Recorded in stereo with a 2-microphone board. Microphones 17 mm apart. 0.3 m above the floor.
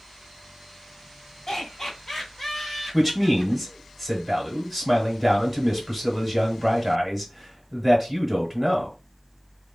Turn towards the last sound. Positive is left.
turn(degrees=-10)  # may be behind; listen again after turning